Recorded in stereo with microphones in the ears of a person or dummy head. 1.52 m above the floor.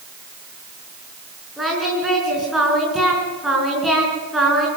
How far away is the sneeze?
I don't hear a sneeze.